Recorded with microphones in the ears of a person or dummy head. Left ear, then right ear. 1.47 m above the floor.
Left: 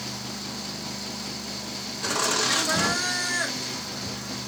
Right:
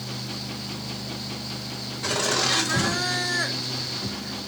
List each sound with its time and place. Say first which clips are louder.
2.0 s laughter: right 1 dB; 30° left (ahead or behind), 1.6 m; by 4.4 s 75° left (ahead or behind), 0.9 m